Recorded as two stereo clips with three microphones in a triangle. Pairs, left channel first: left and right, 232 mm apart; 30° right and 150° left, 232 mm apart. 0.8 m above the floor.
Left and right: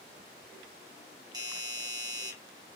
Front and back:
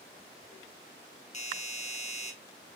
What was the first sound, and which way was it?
A doorbell, 35° right.